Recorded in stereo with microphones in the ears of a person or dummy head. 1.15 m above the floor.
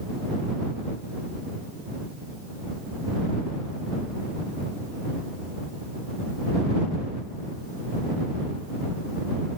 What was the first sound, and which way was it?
Only background noise.